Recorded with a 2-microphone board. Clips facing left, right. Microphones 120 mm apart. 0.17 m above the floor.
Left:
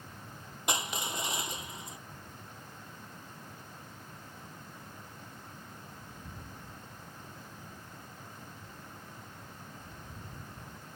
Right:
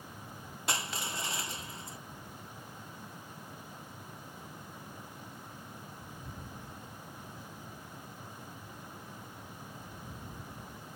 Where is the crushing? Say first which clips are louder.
Left 2 dB; 20° left (ahead or behind).